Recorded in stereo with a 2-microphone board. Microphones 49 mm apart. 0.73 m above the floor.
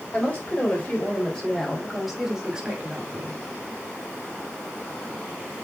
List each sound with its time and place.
0.1 s a woman speaking: 25° left (ahead or behind), 4.5 m; by 3.4 s 35° right (ahead or behind), 2.5 m